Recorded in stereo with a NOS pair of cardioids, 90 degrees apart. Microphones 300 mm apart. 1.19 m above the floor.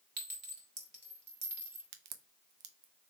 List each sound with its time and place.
0.2 s a clink: 35° right, 1.8 m
1.9 s a crack: 65° right, 0.7 m